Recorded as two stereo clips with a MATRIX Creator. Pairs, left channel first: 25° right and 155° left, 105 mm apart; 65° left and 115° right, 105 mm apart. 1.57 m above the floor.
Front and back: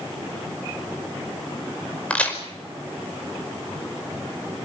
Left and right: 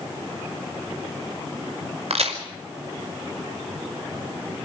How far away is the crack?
About 5 m.